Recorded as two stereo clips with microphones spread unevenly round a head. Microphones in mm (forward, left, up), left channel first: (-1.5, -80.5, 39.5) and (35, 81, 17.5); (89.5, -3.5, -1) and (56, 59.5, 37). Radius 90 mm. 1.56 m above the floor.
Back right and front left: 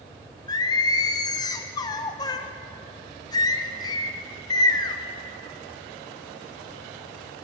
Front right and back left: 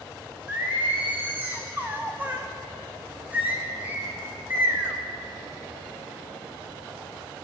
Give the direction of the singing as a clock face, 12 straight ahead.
6 o'clock.